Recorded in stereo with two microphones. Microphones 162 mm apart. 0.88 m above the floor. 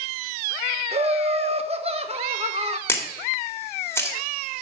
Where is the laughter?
40° right (ahead or behind), 1.2 m.